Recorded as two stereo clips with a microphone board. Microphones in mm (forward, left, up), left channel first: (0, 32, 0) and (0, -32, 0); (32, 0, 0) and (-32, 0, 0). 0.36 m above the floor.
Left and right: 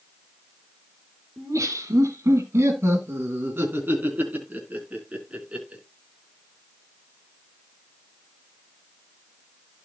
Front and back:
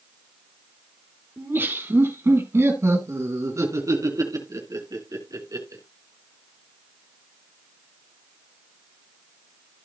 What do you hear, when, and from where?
1.4 s laughter: 125° right, 4 m; by 5.8 s 165° right, 4.5 m